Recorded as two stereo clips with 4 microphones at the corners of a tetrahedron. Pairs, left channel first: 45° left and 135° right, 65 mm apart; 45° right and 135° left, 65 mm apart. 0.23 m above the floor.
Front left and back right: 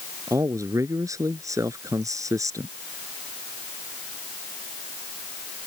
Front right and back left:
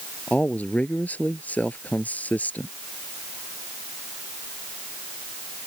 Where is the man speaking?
110° right.